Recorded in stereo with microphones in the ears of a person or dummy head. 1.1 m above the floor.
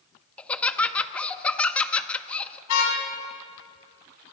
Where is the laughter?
5° left (ahead or behind), 1.7 m.